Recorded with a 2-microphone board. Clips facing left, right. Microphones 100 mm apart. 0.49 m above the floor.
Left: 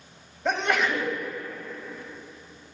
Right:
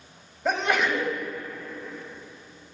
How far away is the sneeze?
About 2 m.